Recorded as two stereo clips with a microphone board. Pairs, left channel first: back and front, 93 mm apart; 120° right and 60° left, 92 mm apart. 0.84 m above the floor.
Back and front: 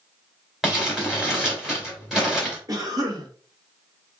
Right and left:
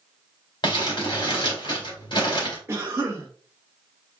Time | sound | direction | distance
0.6 | crumpling | 85° right | 2.5 m
2.7 | a cough | 15° left | 1.4 m